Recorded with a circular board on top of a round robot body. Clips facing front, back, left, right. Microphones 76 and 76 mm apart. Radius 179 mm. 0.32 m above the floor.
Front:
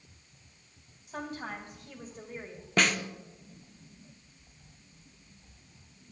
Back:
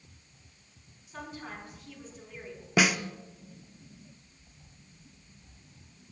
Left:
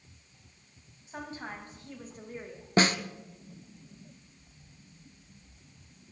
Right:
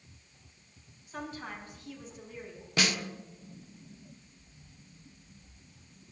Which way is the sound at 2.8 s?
100° left.